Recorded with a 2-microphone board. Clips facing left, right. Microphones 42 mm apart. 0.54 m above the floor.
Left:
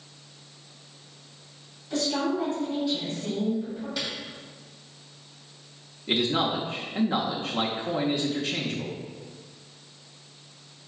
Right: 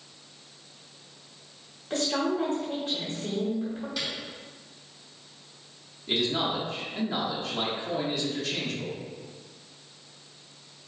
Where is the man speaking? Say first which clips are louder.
Left 2 dB; 25° left (ahead or behind), 0.6 m.